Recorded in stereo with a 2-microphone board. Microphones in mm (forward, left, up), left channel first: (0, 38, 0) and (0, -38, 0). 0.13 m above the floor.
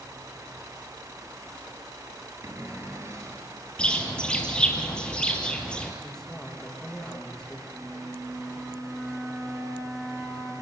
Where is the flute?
10° right (ahead or behind), 6 m.